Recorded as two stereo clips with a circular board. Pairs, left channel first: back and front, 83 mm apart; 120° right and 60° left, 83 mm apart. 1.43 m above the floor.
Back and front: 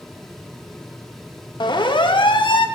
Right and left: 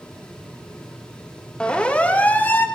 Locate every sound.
1.6 s a siren: 160° left, 3 m; by 2.7 s 175° left, 2.0 m